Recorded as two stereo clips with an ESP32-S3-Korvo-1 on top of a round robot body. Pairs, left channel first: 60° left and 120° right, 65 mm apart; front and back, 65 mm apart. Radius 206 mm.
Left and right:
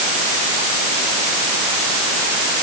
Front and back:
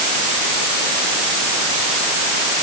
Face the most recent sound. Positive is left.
No sound to turn to.